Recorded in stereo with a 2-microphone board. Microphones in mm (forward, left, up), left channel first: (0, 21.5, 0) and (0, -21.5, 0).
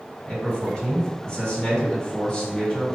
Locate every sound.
0.2 s a man speaking: 25° left (ahead or behind), 2 m